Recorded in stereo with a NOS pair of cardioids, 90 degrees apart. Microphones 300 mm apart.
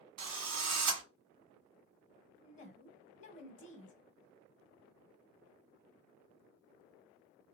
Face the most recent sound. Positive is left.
turn(degrees=40)